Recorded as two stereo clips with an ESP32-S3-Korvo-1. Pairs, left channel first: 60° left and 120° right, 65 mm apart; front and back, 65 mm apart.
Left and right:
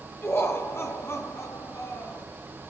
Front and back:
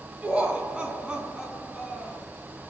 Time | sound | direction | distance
0.2 | laughter | 115° left | 4.5 m